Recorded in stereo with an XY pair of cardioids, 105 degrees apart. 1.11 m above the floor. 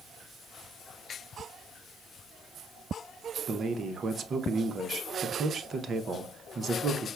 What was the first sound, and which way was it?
A man speaking, 45° right.